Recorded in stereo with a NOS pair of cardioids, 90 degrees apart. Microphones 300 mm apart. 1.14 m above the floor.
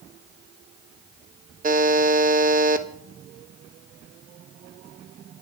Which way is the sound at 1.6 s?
25° right.